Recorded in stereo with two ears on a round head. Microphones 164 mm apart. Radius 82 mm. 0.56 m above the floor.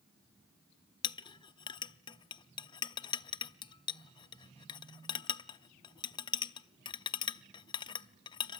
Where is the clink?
25° left (ahead or behind), 0.6 m.